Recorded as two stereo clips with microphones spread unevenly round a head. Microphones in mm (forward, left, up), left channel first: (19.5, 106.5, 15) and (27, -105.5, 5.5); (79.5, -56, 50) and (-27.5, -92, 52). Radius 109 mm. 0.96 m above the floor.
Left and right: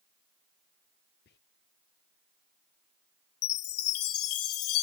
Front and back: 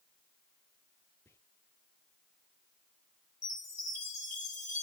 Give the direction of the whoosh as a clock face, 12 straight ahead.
I don't hear a whoosh.